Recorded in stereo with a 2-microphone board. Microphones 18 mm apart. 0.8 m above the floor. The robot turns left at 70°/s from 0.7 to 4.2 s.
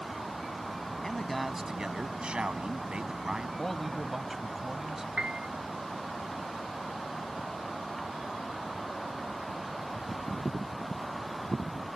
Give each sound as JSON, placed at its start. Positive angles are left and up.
{"t": 1.0, "sound": "a man speaking", "azimuth_deg": 20}
{"t": 3.6, "sound": "a man speaking", "azimuth_deg": 25}
{"t": 5.2, "sound": "a piano", "side_deg": -55}